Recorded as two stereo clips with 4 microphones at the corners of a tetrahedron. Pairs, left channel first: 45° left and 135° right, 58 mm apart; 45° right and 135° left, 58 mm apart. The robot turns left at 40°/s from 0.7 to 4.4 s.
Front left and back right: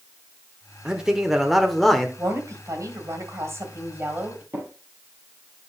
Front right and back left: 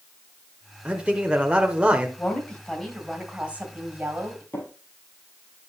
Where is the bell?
No bell in this recording.